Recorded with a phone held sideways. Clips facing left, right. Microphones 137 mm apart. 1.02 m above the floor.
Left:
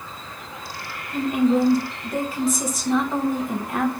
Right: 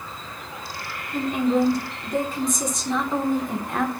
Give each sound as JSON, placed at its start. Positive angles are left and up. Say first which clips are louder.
{"t": 1.1, "sound": "a woman speaking", "louder": "left 2 dB", "side_deg": 5, "distance_m": 1.0}